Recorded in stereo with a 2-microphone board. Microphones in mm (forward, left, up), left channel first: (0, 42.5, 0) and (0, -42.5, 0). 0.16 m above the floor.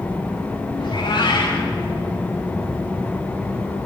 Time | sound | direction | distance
0.8 | a cat meowing | 60° left (ahead or behind) | 8.5 m